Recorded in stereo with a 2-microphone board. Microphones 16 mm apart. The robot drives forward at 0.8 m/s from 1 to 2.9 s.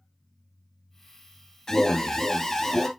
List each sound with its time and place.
1.7 s an alarm: 30° left (ahead or behind), 1.3 m; by 2.9 s 20° left (ahead or behind), 2 m